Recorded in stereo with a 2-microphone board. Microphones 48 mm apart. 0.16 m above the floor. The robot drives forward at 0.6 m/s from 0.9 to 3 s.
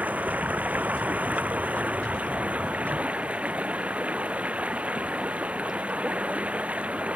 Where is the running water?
30° right (ahead or behind); by 7.2 s 25° right (ahead or behind).